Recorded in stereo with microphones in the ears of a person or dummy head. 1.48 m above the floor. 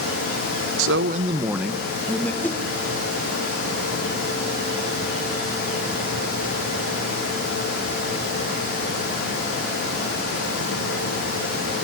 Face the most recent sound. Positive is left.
turn(degrees=10)  # may be behind; listen again after turning